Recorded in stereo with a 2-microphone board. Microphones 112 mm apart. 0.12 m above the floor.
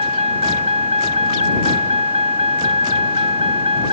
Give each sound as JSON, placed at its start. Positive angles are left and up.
{"t": 0.0, "sound": "a vehicle", "side_deg": -85}